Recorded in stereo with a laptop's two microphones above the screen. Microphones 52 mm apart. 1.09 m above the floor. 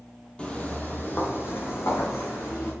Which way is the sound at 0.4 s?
20° left (ahead or behind).